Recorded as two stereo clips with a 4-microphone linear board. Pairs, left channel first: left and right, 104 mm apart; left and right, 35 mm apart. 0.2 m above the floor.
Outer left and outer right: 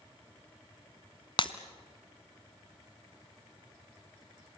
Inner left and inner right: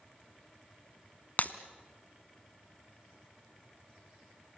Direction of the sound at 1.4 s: 50° left (ahead or behind).